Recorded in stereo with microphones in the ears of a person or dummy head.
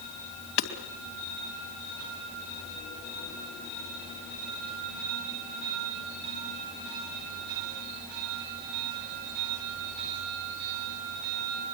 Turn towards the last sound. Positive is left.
turn(degrees=65)  # may be behind; listen again after turning